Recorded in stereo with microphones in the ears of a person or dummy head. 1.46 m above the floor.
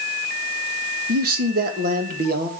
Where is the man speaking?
55° right (ahead or behind), 1.5 m.